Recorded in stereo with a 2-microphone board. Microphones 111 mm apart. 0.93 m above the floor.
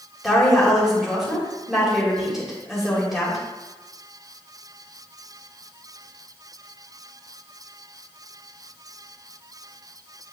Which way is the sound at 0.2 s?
5° right (ahead or behind).